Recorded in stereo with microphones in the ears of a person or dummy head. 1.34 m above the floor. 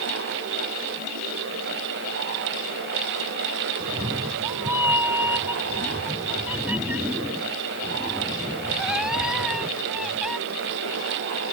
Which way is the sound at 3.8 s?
25° right (ahead or behind).